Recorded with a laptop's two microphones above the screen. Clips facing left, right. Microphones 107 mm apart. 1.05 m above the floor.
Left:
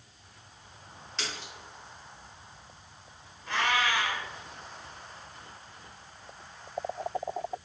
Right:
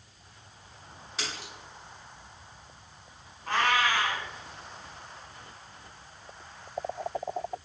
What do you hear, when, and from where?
1.2 s a splash: 10° right (ahead or behind), 0.8 m
3.5 s a cat meowing: 40° right (ahead or behind), 1.2 m